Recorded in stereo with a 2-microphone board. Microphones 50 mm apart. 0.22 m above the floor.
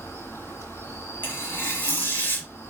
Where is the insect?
60° left (ahead or behind), 2.5 m.